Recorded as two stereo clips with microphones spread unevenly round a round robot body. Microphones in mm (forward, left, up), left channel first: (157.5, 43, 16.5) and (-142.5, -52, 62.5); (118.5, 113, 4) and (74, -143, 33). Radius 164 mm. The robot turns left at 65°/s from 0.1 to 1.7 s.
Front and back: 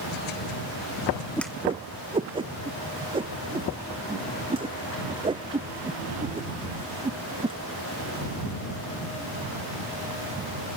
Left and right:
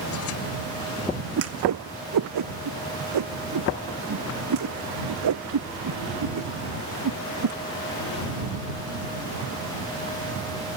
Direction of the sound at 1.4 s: 65° right.